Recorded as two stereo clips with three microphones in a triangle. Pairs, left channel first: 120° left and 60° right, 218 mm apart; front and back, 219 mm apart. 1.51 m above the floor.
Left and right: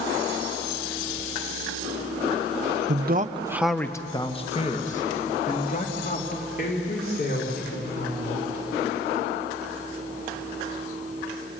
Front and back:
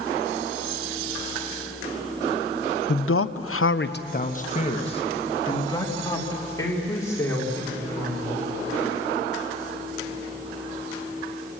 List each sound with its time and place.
2.9 s a man speaking: 30° right, 0.8 m; by 8.4 s 80° left, 5.5 m